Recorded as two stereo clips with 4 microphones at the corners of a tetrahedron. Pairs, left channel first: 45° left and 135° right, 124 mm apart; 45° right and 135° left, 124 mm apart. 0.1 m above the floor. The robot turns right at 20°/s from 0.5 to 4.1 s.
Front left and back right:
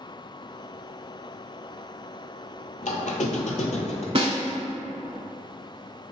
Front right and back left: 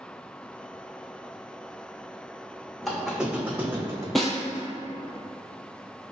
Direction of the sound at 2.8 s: 45° left.